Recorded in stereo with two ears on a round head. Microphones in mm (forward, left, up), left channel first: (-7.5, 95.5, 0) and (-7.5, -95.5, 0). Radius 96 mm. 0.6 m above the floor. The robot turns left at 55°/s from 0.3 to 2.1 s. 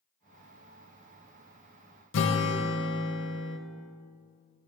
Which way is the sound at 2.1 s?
60° left (ahead or behind).